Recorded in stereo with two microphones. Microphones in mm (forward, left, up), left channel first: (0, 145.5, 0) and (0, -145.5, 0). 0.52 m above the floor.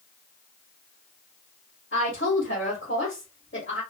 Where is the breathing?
I don't hear breathing.